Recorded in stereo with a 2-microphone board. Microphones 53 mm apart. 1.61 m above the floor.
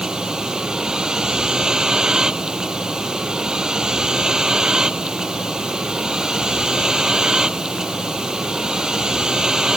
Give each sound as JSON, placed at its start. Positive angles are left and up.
{"t": 0.0, "sound": "a vehicle", "side_deg": -10}